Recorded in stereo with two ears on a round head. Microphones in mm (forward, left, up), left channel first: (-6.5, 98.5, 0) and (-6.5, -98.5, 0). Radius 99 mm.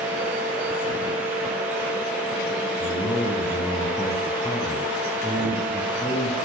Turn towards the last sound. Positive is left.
turn(degrees=5)  # may be behind; listen again after turning